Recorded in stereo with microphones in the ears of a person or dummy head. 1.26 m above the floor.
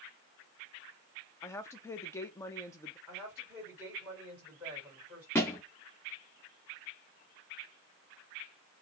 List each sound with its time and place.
1.4 s a woman speaking: 15° left (ahead or behind), 0.6 m
3.1 s a woman speaking: 10° right (ahead or behind), 3 m
5.3 s a thud: 5° left (ahead or behind), 0.5 m